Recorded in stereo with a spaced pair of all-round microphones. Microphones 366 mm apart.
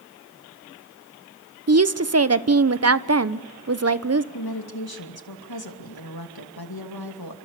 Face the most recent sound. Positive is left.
turn(degrees=80)